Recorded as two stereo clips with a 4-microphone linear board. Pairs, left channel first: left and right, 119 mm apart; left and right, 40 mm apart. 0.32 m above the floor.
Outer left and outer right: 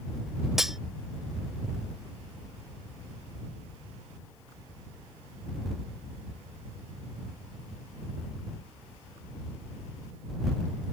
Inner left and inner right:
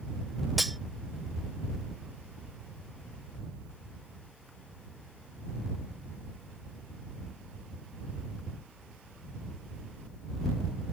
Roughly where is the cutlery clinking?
Centre.